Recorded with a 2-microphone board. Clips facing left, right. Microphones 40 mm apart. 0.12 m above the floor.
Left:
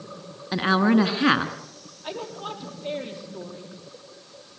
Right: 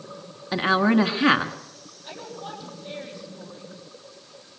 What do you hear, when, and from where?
0.5 s a woman speaking: 5° right (ahead or behind), 1.4 m
2.0 s a woman speaking: 70° left (ahead or behind), 4.5 m